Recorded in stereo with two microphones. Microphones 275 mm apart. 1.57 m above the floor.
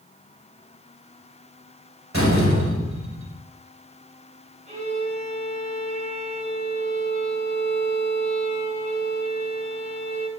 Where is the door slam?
55° right (ahead or behind), 5.5 m.